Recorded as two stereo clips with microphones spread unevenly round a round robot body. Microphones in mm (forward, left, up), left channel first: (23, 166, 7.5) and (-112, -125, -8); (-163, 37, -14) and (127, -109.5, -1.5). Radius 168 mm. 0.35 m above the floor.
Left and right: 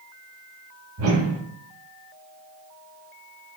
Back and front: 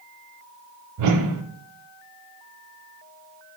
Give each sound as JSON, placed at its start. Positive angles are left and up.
{"t": 1.0, "sound": "a whoosh", "azimuth_deg": -65, "distance_m": 0.6}